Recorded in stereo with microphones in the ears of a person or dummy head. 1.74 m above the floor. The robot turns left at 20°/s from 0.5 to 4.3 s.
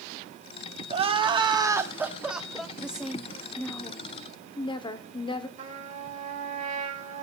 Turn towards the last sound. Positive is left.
turn(degrees=-45)  # may be behind; listen again after turning